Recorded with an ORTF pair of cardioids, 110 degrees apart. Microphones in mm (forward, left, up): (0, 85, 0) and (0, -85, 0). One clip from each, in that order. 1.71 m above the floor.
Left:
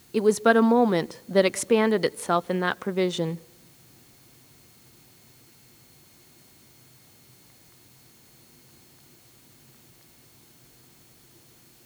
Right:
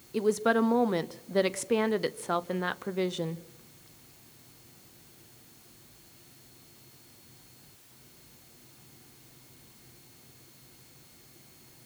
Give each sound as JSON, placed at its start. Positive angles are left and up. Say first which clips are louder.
{"t": 0.1, "sound": "a woman speaking", "louder": "left 6 dB", "azimuth_deg": 25, "distance_m": 0.6}